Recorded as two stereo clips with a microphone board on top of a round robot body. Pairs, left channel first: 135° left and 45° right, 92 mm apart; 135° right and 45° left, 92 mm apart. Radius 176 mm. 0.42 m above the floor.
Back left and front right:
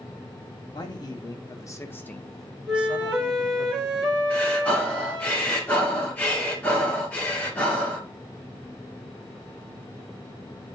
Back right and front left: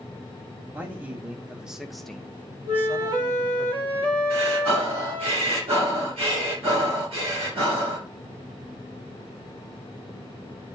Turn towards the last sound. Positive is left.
turn(degrees=60)